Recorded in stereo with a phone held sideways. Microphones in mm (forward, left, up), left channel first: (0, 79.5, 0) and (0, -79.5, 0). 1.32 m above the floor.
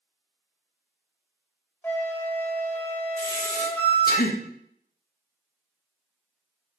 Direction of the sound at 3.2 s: 70° left (ahead or behind).